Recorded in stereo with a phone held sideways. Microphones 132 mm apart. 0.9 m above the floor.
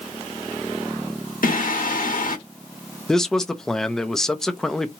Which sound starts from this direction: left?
Singing, at 1.4 s.